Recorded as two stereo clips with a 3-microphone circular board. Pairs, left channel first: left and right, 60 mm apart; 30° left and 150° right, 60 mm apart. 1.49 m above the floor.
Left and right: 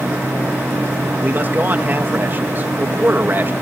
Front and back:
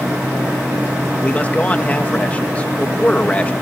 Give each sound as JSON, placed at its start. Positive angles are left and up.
{"t": 1.2, "sound": "a man speaking", "azimuth_deg": -35}